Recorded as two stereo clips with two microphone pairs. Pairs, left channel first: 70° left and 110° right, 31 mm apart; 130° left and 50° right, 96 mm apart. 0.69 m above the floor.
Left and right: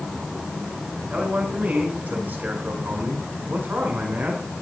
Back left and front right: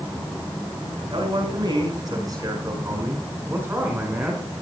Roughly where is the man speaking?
Right.